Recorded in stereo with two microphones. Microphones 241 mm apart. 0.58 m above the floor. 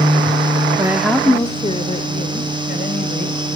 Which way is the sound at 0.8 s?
15° right (ahead or behind).